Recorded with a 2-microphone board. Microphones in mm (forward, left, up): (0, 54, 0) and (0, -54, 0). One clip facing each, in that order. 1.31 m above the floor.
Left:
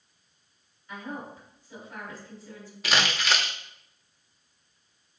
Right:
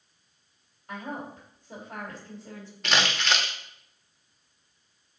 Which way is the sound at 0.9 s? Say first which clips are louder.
Right 1 dB; 60° right (ahead or behind).